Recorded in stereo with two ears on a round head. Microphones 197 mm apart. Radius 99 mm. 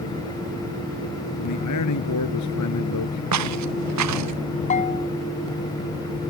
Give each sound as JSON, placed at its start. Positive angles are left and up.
{"t": 1.4, "sound": "a man speaking", "side_deg": 90}
{"t": 3.3, "sound": "footsteps", "side_deg": -85}
{"t": 4.7, "sound": "a bell", "side_deg": 35}